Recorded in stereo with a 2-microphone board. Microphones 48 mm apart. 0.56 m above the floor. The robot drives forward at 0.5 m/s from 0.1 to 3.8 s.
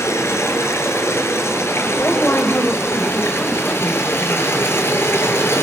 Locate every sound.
0.0 s running water: 65° left (ahead or behind), 5.5 m; by 5.6 s 50° left (ahead or behind), 6.5 m
1.9 s a woman speaking: 50° left (ahead or behind), 2.5 m; by 5.5 s 35° left (ahead or behind), 3 m